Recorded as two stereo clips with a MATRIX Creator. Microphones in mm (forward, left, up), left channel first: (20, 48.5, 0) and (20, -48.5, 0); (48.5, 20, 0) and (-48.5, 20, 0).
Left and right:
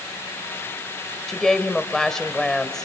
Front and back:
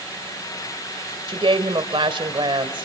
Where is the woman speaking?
175° left, 1.7 m.